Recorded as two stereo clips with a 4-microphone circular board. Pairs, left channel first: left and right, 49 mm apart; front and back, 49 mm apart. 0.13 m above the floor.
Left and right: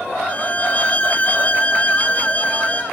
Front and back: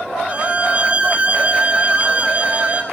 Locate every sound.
0.3 s a violin: 130° left, 1.4 m